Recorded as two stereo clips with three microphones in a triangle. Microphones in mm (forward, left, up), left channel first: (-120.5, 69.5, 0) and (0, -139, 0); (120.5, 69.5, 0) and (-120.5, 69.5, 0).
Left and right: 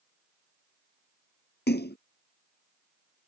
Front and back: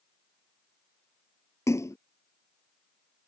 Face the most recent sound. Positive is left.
turn(degrees=80)